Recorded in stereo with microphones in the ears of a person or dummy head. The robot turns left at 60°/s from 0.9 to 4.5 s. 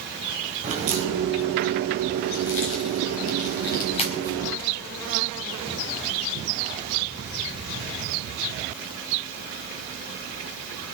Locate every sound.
0.6 s a crack: 40° right (ahead or behind), 4 m; by 4.5 s 5° left (ahead or behind), 4 m